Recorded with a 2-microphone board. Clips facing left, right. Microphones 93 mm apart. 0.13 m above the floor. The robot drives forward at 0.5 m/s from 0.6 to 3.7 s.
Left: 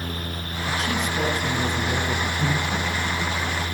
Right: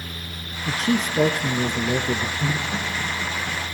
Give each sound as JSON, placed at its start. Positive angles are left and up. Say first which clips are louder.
{"t": 0.7, "sound": "a man speaking", "louder": "right 3 dB", "side_deg": -35, "distance_m": 1.7}
{"t": 2.4, "sound": "laughter", "louder": "left 1 dB", "side_deg": 10, "distance_m": 8.0}